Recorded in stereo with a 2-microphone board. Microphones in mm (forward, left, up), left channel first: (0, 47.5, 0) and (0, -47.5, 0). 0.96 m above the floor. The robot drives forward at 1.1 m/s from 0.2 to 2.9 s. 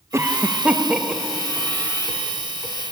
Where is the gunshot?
I don't hear a gunshot.